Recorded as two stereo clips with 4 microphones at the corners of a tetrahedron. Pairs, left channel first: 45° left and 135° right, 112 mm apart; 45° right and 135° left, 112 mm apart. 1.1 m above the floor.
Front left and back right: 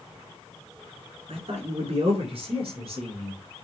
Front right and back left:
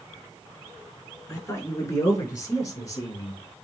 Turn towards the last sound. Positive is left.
turn(degrees=-100)